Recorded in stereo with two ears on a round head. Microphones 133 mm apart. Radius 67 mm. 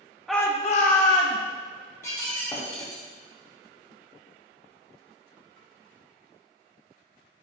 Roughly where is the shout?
Centre.